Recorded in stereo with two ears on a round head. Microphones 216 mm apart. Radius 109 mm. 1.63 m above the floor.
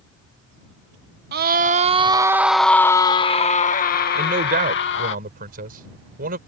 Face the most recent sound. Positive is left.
turn(degrees=-35)  # may be behind; listen again after turning